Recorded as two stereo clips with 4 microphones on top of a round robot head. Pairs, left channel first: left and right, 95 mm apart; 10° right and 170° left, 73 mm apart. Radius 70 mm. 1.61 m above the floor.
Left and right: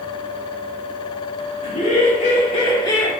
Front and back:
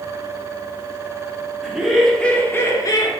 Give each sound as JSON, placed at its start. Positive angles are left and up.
{"t": 1.6, "sound": "laughter", "azimuth_deg": 90, "distance_m": 1.7}